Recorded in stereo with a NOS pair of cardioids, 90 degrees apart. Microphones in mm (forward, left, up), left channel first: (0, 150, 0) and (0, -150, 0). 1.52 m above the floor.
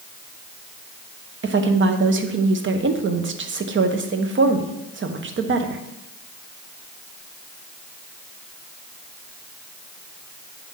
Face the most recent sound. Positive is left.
turn(degrees=-40)